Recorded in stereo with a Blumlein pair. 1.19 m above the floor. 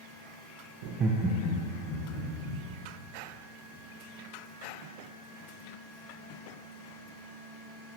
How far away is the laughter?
About 0.5 m.